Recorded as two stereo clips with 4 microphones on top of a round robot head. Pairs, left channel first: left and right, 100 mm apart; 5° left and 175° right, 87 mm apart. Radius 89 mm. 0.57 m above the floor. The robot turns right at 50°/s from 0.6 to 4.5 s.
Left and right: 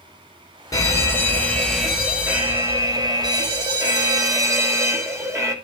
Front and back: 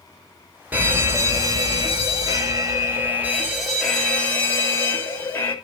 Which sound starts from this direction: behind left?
A fire alarm, at 0.7 s.